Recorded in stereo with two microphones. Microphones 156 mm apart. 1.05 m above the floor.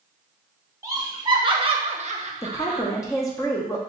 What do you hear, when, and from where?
0.8 s laughter: 20° right (ahead or behind), 1.2 m; by 2.8 s 35° right (ahead or behind), 0.7 m
2.4 s a woman speaking: 20° left (ahead or behind), 0.8 m